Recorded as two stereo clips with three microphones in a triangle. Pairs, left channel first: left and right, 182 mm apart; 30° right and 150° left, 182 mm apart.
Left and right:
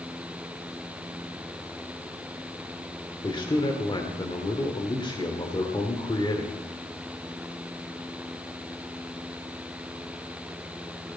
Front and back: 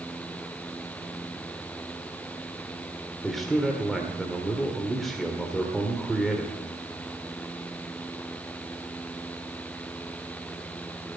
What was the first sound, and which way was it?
A man speaking, 60° left.